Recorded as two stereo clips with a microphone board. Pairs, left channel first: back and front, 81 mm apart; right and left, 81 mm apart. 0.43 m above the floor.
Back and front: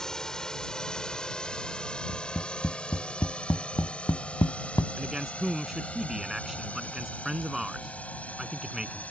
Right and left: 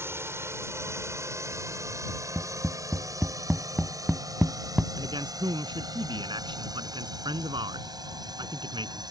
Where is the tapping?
165° left.